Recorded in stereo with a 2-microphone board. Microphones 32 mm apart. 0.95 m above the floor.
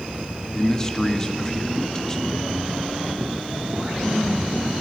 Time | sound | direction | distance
0.5 | a man speaking | 20° left (ahead or behind) | 1.3 m